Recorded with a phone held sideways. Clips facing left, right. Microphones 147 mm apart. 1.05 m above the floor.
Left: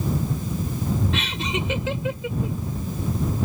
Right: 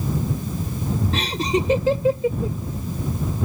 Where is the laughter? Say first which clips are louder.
Right 5 dB; 40° right (ahead or behind).